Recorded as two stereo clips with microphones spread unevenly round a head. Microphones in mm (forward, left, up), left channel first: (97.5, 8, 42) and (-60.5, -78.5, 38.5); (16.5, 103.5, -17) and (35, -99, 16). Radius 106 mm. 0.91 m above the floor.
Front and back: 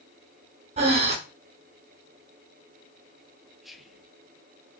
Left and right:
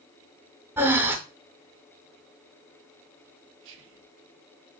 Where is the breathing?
135° right, 0.6 m.